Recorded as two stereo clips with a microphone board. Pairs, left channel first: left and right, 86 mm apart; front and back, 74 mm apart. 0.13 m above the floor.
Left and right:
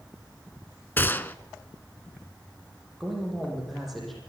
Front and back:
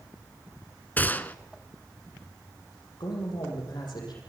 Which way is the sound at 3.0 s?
Straight ahead.